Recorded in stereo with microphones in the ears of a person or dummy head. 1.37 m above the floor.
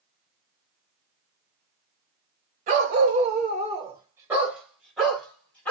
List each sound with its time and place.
2.7 s a dog barking: 35° right (ahead or behind), 1.4 m; by 5.7 s 10° left (ahead or behind), 2.5 m